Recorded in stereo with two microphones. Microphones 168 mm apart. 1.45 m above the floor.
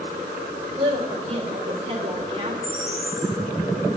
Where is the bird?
5° left (ahead or behind), 3.5 m.